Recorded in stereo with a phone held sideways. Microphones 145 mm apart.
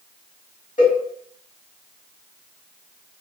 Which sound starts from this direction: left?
A cowbell, at 0.8 s.